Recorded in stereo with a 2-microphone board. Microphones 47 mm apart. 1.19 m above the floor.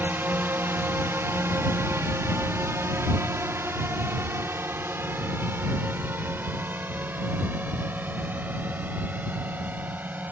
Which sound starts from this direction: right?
A drone, at 0.0 s.